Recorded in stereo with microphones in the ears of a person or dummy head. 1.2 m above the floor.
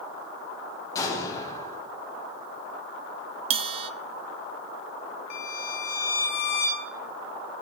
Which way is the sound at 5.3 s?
65° left (ahead or behind).